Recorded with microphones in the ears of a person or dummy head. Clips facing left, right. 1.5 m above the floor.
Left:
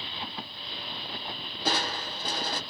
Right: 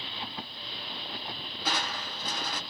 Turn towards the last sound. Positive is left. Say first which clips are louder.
# left 4 dB
turn(degrees=45)  # may be behind; listen again after turning